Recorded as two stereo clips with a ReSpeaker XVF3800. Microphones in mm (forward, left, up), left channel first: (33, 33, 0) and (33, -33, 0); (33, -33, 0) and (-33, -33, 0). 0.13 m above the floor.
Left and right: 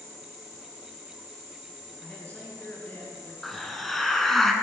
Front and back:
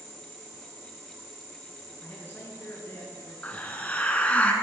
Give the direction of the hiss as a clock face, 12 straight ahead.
12 o'clock.